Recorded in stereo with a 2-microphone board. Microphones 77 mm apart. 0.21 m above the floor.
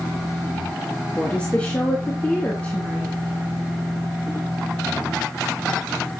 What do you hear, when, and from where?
1.1 s a woman speaking: 15° left (ahead or behind), 3 m